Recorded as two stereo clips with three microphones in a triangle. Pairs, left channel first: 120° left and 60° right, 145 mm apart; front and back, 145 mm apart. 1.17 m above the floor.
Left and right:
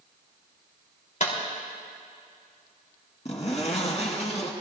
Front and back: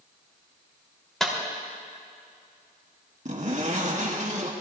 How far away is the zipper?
About 2.5 m.